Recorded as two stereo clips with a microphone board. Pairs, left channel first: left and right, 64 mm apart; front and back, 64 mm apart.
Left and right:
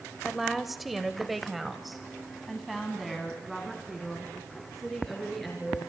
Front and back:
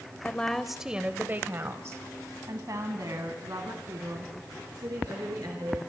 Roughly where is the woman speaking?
Ahead.